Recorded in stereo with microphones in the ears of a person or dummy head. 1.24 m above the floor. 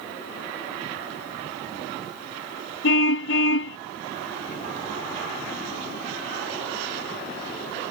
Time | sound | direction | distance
2.8 | a car horn | 80° left | ?